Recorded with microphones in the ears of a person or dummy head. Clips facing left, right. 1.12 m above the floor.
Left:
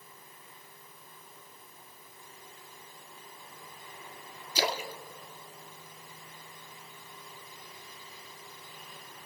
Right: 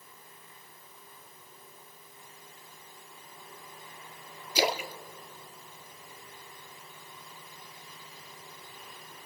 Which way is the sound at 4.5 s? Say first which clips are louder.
Right 3 dB; 15° right (ahead or behind).